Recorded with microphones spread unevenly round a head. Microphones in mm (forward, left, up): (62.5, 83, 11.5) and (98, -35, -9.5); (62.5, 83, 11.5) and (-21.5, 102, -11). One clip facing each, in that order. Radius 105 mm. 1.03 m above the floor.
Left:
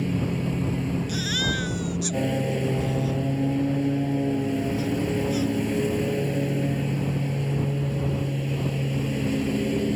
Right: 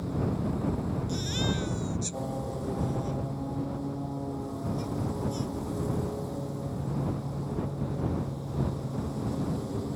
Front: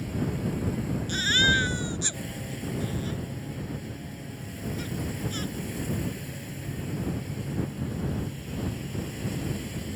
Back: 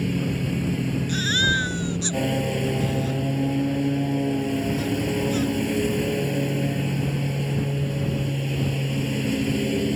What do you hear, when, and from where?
0.0 s a lawn mower: 150° left
1.1 s a baby crying: 100° left